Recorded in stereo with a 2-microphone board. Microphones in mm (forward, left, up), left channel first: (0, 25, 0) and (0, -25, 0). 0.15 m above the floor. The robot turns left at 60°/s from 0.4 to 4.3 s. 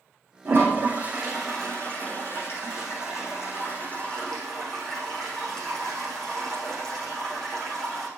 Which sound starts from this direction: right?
A toilet flushing, at 0.5 s.